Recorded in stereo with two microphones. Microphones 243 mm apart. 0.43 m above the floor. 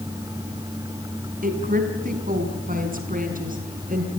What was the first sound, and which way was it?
A woman speaking, 35° right (ahead or behind).